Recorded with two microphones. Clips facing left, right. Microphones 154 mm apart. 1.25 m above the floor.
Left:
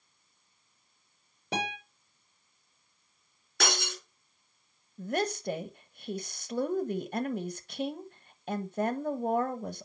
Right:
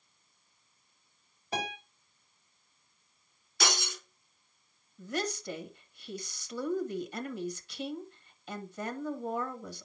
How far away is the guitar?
About 6.5 m.